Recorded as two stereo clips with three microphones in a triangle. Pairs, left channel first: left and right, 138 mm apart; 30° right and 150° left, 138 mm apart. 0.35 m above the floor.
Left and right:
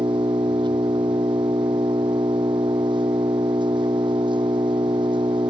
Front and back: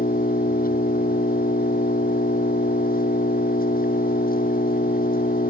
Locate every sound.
0.0 s an engine running: 30° right